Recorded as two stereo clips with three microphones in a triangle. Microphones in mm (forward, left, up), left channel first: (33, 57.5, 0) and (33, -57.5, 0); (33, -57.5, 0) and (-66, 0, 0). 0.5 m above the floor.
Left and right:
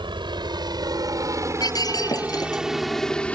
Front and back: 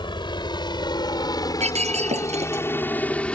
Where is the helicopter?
60° right; by 3.4 s 35° left.